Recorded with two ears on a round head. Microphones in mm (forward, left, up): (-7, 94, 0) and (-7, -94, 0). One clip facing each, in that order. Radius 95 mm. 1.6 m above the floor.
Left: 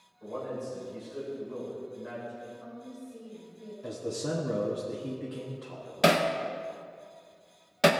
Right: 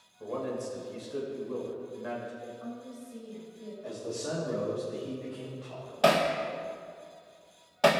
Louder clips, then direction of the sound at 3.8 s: Left 3 dB; 55° left (ahead or behind).